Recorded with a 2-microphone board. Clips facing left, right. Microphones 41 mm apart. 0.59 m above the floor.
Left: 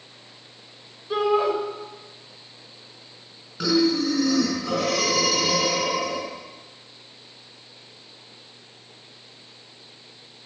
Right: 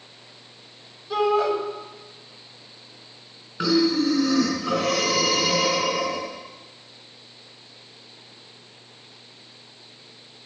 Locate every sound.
1.1 s a shout: 20° left (ahead or behind), 2.5 m
3.6 s breathing: 20° right (ahead or behind), 4.5 m